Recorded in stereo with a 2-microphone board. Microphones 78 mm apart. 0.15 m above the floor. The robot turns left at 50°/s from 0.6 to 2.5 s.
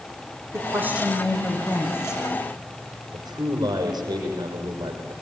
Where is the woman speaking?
145° right, 6.5 m; by 2.2 s 135° left, 6.5 m.